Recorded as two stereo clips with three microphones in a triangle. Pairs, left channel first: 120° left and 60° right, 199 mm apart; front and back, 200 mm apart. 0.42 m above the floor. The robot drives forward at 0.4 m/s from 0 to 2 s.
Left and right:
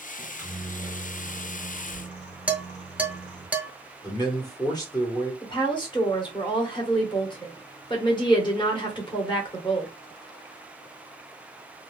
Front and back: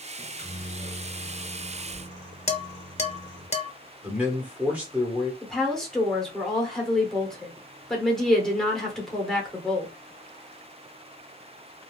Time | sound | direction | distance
0.2 | a microwave | 35° left | 1.7 m
2.5 | dishes clattering | 20° left | 0.5 m
4.0 | a man speaking | 110° left | 1.1 m
5.4 | a woman speaking | 85° left | 1.0 m